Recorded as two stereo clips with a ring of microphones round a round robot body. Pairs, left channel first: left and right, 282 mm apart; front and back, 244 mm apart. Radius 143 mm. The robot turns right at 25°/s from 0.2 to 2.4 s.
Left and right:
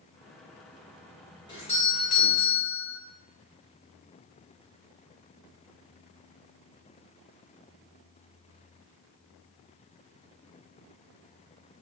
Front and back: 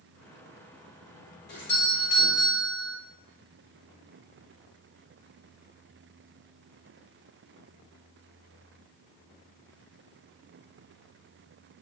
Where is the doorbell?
25° left, 1.2 m; by 3.0 s 45° left, 1.2 m.